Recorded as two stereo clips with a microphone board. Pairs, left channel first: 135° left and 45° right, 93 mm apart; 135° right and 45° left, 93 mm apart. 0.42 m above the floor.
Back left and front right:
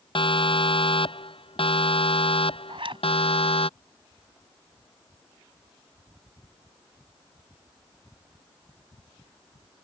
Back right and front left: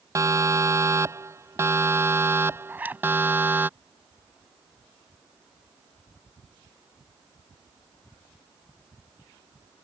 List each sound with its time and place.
0.1 s a siren: 105° left; by 3.7 s 115° left
2.7 s a zipper: 25° right